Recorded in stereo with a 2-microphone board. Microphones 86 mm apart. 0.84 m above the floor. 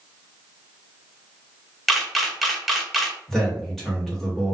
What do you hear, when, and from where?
1.9 s a camera shutter: centre (ahead or behind), 0.5 m
3.3 s a man speaking: 5° left (ahead or behind), 1.2 m